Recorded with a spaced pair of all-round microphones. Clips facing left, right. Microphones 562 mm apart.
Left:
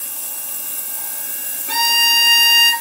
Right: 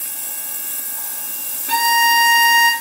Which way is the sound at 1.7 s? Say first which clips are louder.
Right 6 dB; 20° right (ahead or behind).